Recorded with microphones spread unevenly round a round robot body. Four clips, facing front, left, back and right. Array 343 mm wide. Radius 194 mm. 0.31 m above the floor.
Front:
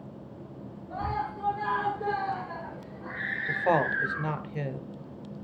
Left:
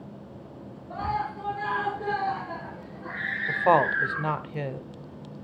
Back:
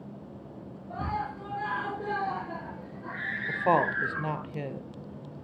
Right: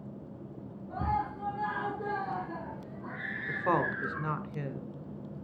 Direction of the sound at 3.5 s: 90° left.